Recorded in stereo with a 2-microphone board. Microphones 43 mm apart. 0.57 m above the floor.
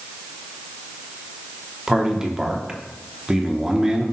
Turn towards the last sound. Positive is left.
turn(degrees=-15)  # may be behind; listen again after turning